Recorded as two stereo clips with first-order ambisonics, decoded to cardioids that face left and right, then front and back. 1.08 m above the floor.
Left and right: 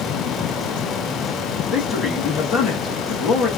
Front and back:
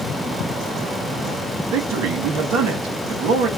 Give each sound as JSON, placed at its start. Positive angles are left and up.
{"t": 1.7, "sound": "a man speaking", "azimuth_deg": 155, "distance_m": 1.7}